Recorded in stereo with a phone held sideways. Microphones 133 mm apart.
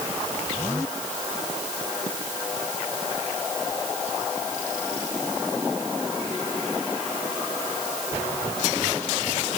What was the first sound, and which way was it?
Only background noise.